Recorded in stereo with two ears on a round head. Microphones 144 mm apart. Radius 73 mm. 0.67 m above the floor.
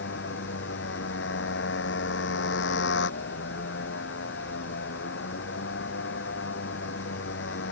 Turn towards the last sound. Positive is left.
turn(degrees=90)